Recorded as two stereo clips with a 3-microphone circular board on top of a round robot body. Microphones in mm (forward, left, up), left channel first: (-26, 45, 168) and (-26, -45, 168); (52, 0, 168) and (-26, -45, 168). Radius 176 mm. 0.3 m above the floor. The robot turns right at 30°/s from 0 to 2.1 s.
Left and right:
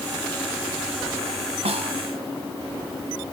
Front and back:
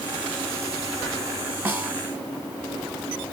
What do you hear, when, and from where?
1.6 s a snare drum: 80° right, 1.1 m; by 1.9 s 75° right, 1.1 m